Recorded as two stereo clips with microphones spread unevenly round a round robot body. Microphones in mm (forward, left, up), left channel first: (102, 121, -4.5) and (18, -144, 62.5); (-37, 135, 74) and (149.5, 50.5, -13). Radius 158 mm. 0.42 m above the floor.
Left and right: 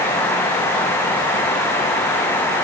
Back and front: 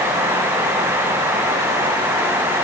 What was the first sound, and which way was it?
Only background noise.